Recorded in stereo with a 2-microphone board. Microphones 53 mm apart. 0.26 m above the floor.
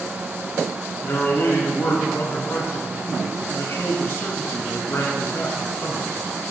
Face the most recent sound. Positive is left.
turn(degrees=50)  # may be behind; listen again after turning